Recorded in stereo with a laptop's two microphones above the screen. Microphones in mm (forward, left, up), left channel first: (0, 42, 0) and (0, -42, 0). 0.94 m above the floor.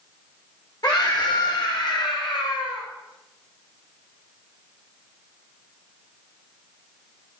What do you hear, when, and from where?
0.8 s a scream: 50° left (ahead or behind), 3.5 m; by 2.9 s 80° left, 4 m